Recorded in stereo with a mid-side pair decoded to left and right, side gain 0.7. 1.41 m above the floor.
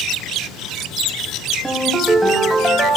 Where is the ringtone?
10° right, 3.5 m.